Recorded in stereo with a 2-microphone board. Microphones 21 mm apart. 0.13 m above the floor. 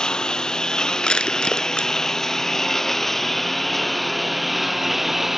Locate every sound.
0.0 s a lawn mower: 40° left (ahead or behind); by 5.4 s 10° right (ahead or behind)
1.0 s crushing: 45° left (ahead or behind)